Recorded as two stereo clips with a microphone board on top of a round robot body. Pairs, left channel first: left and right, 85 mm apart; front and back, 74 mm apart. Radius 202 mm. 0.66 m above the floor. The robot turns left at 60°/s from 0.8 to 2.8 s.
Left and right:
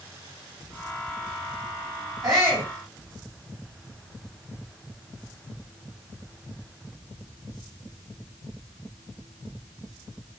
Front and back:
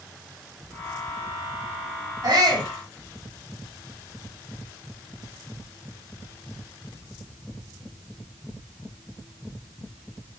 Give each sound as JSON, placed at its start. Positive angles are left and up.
{"t": 2.2, "sound": "a shout", "azimuth_deg": -140, "distance_m": 6.5}